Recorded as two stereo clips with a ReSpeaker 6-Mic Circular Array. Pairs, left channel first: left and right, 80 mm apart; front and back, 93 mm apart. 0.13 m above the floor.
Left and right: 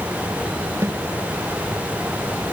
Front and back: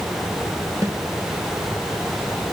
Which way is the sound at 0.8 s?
135° right.